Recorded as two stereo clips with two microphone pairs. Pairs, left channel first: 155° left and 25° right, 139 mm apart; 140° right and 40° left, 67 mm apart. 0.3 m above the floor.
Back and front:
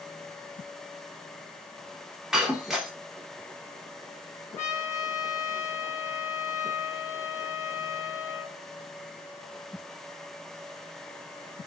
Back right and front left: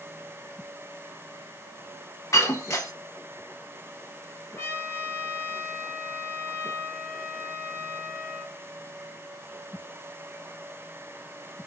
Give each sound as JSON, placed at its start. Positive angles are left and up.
{"t": 2.3, "sound": "breaking glass", "azimuth_deg": -115, "distance_m": 0.9}
{"t": 4.6, "sound": "a trumpet", "azimuth_deg": -150, "distance_m": 1.3}